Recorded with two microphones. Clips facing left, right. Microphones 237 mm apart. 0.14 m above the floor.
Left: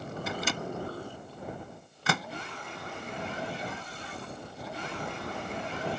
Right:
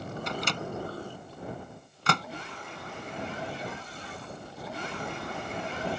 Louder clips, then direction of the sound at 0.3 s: Left 1 dB; 5° left (ahead or behind).